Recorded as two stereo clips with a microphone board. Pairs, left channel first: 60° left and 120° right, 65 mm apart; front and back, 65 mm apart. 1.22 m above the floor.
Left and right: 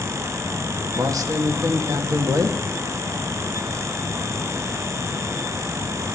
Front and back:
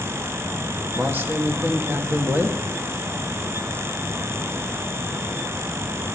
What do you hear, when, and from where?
0.9 s a man speaking: 125° right, 2 m